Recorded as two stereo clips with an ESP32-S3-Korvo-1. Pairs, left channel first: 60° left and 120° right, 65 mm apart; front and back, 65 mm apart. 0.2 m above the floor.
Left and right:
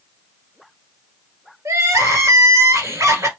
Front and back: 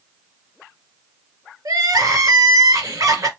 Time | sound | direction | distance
1.6 | crying | 160° right | 1.6 m